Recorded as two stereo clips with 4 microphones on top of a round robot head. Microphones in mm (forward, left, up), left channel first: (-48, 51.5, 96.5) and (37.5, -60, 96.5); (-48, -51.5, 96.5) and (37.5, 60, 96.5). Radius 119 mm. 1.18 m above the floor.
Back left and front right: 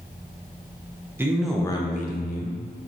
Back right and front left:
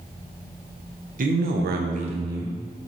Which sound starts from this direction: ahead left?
A man speaking, at 1.2 s.